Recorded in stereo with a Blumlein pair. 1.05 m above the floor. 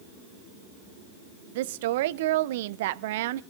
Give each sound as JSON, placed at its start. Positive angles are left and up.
{"t": 1.6, "sound": "a woman speaking", "azimuth_deg": -55, "distance_m": 0.5}